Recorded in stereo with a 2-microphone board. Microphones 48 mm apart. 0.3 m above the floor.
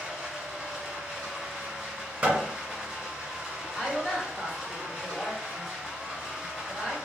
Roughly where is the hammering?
Right.